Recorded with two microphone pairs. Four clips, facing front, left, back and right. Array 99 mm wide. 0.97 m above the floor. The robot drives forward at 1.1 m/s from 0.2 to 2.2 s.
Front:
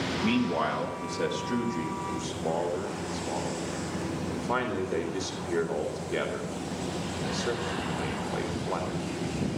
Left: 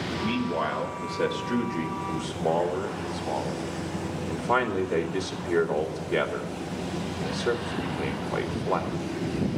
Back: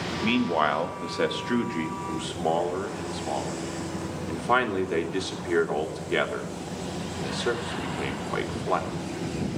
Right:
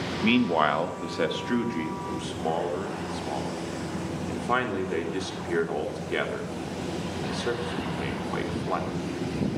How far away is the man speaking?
About 1.3 m.